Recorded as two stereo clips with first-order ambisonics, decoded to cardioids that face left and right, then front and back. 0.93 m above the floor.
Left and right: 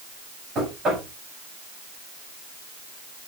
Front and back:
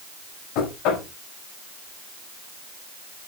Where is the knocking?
30° right, 5 m.